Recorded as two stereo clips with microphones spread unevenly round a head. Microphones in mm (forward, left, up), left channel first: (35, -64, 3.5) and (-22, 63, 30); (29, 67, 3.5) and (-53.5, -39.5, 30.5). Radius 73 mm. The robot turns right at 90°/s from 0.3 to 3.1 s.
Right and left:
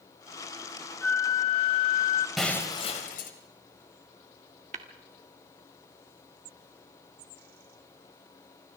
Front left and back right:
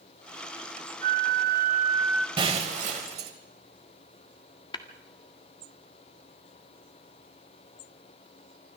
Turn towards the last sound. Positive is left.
turn(degrees=115)